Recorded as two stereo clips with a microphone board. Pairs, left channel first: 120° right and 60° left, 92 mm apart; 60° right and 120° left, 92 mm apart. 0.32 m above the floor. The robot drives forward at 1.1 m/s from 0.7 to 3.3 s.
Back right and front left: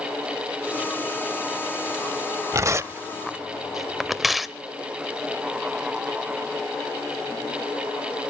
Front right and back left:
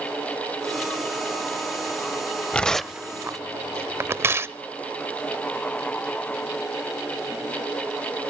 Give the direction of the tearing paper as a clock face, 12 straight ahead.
12 o'clock.